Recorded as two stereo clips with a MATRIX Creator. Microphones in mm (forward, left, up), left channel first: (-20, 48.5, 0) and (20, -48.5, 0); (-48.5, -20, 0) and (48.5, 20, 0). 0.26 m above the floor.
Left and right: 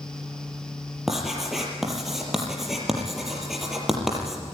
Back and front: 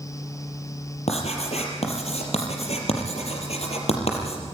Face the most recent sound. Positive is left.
turn(degrees=-155)